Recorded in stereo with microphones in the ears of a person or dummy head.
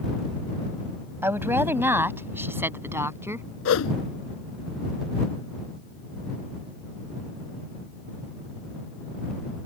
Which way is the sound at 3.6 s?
85° left.